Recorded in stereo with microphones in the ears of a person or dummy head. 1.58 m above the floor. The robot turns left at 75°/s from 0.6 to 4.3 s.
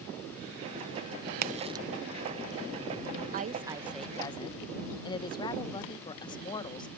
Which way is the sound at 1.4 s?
50° right (ahead or behind).